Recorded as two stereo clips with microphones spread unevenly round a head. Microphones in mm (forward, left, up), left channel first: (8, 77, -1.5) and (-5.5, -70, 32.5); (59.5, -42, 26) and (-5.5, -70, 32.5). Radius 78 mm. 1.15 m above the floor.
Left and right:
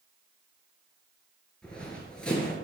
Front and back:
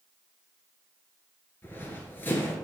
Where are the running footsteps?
20° right, 1.2 m.